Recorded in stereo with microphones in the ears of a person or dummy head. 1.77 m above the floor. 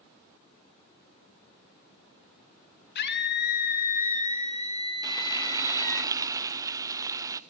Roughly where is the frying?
Centre.